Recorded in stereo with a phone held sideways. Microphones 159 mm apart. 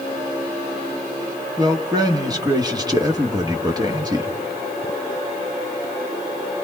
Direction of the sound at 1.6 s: 25° right (ahead or behind).